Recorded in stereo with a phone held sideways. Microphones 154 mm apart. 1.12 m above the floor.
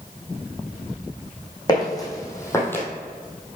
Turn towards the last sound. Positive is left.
turn(degrees=10)  # may be behind; listen again after turning